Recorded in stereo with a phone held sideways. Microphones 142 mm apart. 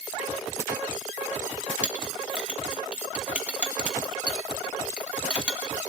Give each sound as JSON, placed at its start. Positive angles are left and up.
{"t": 1.8, "sound": "a clink", "side_deg": -10, "distance_m": 1.5}